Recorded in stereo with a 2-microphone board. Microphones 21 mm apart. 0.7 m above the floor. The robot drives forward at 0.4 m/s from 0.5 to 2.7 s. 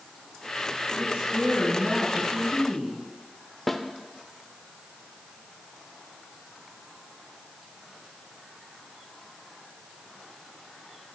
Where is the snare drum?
5° left (ahead or behind), 0.5 m.